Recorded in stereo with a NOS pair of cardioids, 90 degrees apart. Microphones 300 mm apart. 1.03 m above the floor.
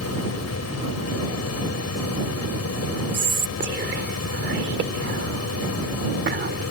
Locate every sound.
0.0 s a fan: 55° left
3.1 s whispering: 40° right